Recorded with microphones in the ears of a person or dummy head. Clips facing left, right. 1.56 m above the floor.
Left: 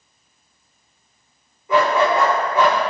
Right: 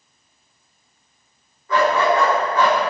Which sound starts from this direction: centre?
A dog barking, at 1.7 s.